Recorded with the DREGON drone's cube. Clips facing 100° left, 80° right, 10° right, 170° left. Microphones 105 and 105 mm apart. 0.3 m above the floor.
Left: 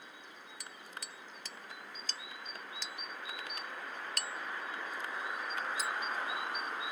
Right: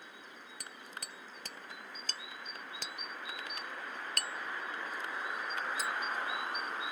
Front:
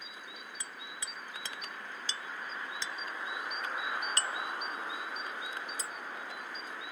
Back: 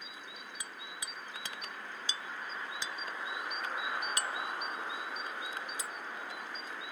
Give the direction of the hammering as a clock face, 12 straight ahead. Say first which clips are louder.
Right 1 dB, even; 4 o'clock.